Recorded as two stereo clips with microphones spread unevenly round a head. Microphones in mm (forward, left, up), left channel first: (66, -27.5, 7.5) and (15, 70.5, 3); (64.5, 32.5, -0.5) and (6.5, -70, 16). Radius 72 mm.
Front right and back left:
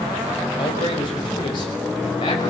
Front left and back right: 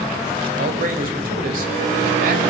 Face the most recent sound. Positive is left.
turn(degrees=-125)